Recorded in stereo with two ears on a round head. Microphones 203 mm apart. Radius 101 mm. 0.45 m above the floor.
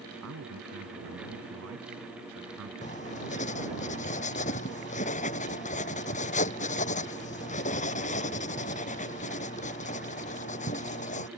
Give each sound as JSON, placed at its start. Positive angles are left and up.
{"t": 0.2, "sound": "a man speaking", "side_deg": -80}
{"t": 2.8, "sound": "writing", "side_deg": 35}